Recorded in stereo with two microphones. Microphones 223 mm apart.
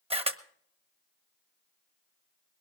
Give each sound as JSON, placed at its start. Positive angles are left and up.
{"t": 0.1, "sound": "a camera shutter", "side_deg": -25, "distance_m": 0.9}